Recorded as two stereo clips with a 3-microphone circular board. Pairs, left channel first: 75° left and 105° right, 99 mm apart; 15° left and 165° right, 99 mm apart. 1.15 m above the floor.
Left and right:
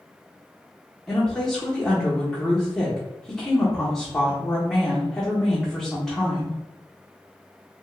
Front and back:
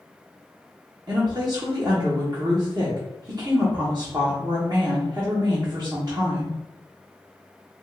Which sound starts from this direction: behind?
A woman speaking, at 1.1 s.